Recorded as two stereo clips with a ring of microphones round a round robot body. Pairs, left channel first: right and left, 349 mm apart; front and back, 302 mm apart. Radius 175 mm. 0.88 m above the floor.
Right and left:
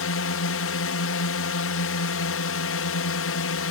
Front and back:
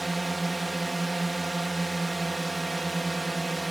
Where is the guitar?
I don't hear a guitar.